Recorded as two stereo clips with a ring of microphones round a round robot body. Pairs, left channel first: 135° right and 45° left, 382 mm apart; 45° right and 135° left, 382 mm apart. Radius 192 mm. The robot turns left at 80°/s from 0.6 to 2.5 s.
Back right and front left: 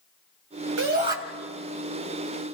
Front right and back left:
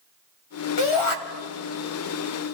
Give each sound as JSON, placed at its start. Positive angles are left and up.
{"t": 0.8, "sound": "a shout", "azimuth_deg": -10, "distance_m": 3.0}